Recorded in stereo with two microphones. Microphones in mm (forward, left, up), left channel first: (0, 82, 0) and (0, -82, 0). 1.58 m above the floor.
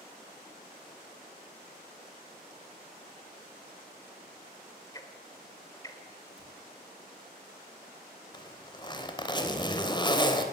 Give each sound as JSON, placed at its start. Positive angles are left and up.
{"t": 4.9, "sound": "ticking", "side_deg": 20, "distance_m": 2.5}
{"t": 6.4, "sound": "a cupboard door", "side_deg": -10, "distance_m": 8.0}
{"t": 8.3, "sound": "a zipper", "side_deg": 25, "distance_m": 3.0}